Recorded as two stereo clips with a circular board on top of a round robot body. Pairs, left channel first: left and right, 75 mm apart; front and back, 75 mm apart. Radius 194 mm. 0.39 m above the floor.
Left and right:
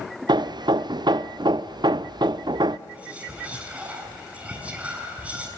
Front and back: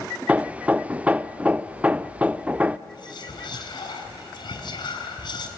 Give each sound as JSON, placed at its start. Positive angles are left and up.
{"t": 0.3, "sound": "hammering", "azimuth_deg": -105, "distance_m": 0.6}
{"t": 2.9, "sound": "whispering", "azimuth_deg": -15, "distance_m": 6.0}